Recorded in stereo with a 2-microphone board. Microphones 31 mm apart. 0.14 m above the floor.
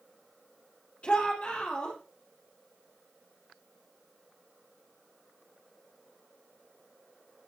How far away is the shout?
About 4.5 m.